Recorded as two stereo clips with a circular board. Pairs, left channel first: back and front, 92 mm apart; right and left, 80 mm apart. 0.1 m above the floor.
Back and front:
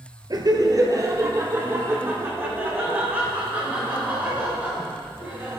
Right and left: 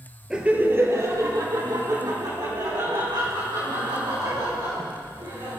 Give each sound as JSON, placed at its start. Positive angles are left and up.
{"t": 0.3, "sound": "laughter", "azimuth_deg": 10, "distance_m": 1.6}